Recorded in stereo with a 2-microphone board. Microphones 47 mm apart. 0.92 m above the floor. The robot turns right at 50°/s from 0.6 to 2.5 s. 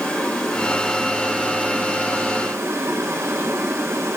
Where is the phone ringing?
I don't hear a phone ringing.